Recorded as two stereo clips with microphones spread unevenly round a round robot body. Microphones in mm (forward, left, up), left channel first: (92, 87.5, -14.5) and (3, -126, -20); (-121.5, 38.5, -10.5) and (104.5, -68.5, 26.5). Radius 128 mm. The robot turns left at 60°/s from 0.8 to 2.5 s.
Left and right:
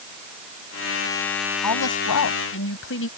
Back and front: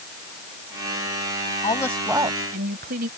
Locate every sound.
1.6 s a woman speaking: 85° left; by 3.1 s 35° left